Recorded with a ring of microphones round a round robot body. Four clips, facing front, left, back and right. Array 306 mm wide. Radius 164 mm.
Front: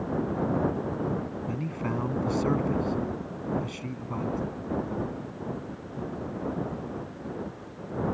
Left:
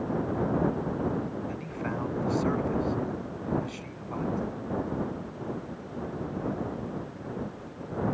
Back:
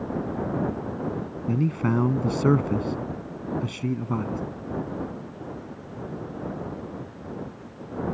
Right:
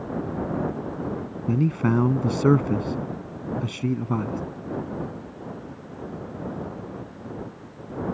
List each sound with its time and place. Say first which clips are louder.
1.5 s a man speaking: right 11 dB, back 10 dB; 120° right